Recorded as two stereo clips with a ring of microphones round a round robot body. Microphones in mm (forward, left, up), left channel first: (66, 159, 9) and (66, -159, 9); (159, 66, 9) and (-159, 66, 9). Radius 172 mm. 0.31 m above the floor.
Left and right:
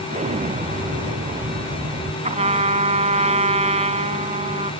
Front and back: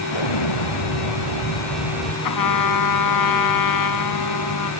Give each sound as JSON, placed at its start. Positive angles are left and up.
{"t": 0.1, "sound": "an explosion", "azimuth_deg": -20}
{"t": 2.2, "sound": "a trumpet", "azimuth_deg": -20}